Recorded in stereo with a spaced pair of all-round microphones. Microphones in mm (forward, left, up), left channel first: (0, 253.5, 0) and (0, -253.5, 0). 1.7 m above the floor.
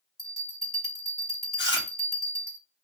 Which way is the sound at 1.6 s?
20° left (ahead or behind).